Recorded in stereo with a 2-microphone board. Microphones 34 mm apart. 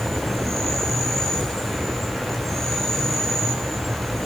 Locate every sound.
0.0 s an insect: 5° left (ahead or behind), 4.5 m